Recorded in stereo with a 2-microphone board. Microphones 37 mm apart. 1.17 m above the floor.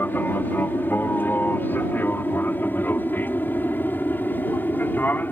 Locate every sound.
0.0 s an aircraft: 60° left (ahead or behind)